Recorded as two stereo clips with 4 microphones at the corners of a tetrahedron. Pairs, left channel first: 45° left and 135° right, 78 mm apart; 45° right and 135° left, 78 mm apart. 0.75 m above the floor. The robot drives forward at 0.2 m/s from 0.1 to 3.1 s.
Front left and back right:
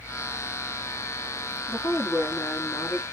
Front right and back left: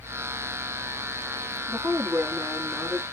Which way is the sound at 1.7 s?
85° left.